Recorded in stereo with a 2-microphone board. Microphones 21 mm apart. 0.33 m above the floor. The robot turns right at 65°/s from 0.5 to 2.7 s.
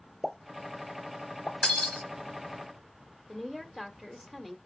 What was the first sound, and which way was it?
A pop, centre (ahead or behind).